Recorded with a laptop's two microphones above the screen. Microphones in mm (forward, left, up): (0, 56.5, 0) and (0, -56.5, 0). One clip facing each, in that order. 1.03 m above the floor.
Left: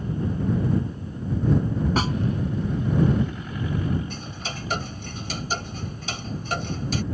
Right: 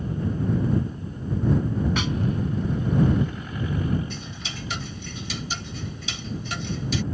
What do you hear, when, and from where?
2.0 s a snare drum: 40° left (ahead or behind)
4.1 s ticking: 45° left (ahead or behind)